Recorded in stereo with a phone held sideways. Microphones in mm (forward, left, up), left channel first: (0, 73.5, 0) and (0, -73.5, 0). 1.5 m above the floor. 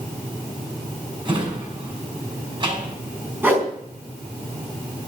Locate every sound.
1.2 s a drawer: 30° right (ahead or behind), 6 m
3.4 s a whoosh: 15° right (ahead or behind), 4 m